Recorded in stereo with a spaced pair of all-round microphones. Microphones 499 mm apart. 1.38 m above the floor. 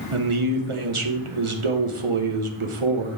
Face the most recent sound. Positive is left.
turn(degrees=-75)  # may be behind; listen again after turning